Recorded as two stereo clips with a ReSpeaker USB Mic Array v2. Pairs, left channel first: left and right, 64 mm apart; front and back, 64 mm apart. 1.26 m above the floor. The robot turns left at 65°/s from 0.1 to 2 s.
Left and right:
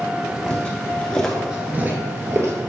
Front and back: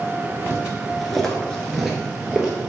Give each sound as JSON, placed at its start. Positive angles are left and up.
{"t": 0.5, "sound": "footsteps", "azimuth_deg": 155, "distance_m": 1.5}